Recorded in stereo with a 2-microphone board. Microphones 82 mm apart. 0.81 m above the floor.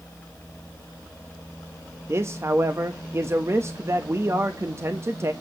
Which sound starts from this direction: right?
A man speaking, at 2.1 s.